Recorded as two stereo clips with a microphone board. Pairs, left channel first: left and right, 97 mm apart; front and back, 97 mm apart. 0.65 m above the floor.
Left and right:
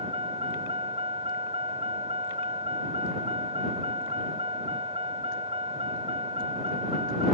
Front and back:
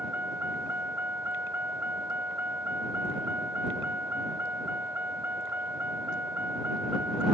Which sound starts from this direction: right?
A vehicle, at 0.0 s.